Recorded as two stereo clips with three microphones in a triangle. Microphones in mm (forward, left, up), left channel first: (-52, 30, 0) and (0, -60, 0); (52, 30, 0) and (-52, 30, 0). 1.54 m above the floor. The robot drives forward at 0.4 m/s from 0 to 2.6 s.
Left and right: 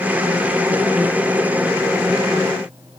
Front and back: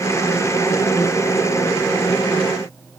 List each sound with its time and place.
Only background noise.